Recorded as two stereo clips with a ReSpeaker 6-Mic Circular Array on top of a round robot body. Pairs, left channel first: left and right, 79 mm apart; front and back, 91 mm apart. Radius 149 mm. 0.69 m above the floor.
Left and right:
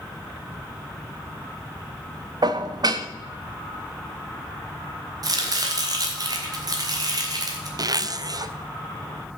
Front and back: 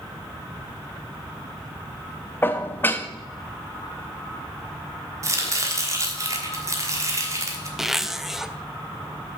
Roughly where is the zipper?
Right.